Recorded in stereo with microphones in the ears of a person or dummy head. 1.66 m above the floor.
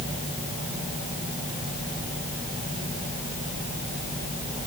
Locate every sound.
Only background noise.